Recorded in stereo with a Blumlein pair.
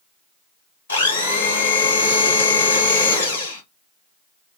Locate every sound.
0.9 s a blender: 70° left, 0.9 m